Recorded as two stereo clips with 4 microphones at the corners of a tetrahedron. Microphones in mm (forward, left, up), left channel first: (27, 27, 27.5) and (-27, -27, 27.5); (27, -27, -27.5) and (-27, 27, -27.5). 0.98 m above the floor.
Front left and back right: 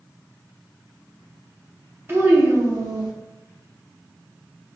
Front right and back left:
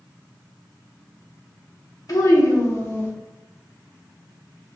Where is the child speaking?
80° right, 1.2 m; by 3.1 s 110° right, 1.1 m.